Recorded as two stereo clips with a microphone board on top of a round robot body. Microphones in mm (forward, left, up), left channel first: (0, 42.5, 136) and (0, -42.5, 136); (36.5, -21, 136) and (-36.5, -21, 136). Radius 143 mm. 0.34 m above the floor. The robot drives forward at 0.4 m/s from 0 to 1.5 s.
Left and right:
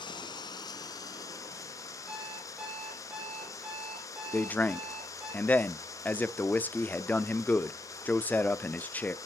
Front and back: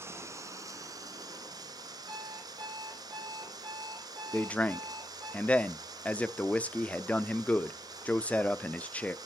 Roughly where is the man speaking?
Ahead left.